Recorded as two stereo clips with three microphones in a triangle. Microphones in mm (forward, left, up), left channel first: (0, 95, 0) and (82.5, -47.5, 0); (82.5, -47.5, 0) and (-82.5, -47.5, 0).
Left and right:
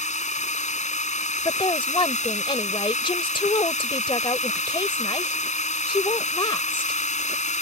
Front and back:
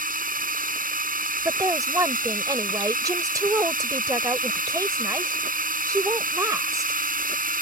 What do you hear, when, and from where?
0.0 s a drone: 160° left
1.4 s a woman speaking: 135° left